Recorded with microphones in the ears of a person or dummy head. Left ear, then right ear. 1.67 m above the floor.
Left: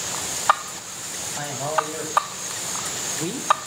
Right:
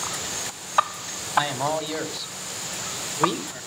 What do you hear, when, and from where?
1.4 s a man speaking: 50° right (ahead or behind), 3.5 m; by 3.7 s 25° right (ahead or behind), 1.6 m